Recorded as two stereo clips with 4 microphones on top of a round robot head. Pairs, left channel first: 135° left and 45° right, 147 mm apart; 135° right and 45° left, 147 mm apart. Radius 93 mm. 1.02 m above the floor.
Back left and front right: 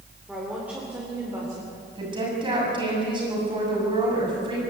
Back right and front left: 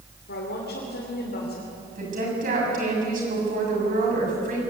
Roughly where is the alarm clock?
I don't hear an alarm clock.